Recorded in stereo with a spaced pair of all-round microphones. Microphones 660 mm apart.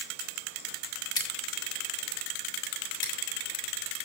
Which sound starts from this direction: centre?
Scissors, at 1.2 s.